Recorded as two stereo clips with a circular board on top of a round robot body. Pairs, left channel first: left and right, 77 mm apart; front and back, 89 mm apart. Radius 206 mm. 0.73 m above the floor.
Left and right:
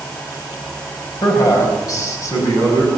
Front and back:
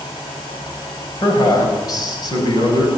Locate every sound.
1.2 s a man speaking: 50° left, 5.5 m; by 2.9 s 40° left, 7.5 m